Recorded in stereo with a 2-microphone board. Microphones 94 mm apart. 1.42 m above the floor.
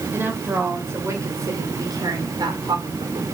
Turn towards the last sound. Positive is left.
turn(degrees=-60)  # may be behind; listen again after turning